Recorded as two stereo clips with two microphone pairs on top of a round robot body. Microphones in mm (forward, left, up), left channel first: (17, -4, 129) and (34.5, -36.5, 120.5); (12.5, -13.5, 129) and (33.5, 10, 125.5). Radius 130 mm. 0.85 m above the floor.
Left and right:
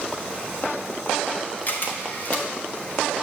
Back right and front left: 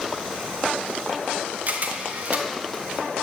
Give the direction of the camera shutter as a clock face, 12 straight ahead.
10 o'clock.